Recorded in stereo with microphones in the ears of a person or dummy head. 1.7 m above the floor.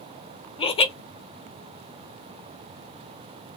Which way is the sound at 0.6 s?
30° left (ahead or behind).